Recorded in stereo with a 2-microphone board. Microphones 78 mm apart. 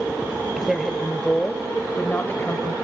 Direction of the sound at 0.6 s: 10° right (ahead or behind).